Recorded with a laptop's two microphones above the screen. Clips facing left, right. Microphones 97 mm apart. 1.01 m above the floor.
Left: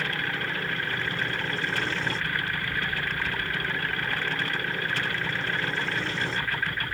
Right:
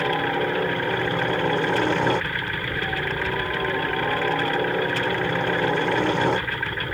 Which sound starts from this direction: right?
A helicopter, at 0.0 s.